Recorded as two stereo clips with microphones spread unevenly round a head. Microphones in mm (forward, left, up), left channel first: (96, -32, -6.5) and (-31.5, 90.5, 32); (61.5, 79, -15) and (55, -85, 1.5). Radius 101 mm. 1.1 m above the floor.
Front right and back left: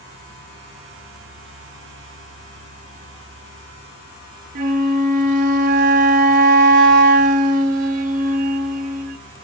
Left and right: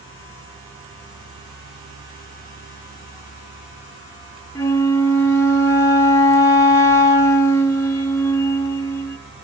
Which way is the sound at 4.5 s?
165° left.